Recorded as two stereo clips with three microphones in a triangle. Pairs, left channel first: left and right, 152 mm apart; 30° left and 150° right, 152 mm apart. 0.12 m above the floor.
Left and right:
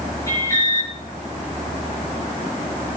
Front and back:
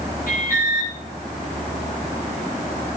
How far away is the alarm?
About 9.5 m.